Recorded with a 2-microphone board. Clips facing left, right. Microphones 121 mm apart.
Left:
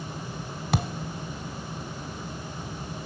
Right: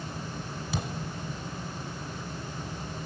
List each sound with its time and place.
0.7 s a thud: 75° left (ahead or behind), 1.4 m